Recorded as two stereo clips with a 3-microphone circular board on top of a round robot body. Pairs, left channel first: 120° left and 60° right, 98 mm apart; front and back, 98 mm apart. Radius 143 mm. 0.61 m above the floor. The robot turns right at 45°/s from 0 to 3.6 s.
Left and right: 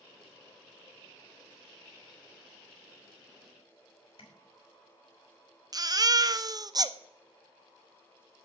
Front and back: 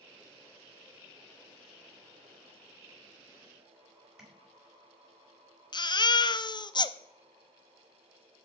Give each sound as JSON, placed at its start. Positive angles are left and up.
{"t": 4.2, "sound": "tapping", "azimuth_deg": 95, "distance_m": 5.0}
{"t": 5.7, "sound": "a baby crying", "azimuth_deg": -25, "distance_m": 0.7}